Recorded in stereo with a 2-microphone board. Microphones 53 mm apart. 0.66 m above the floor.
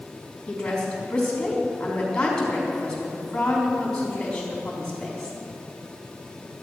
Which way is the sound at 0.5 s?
20° left (ahead or behind).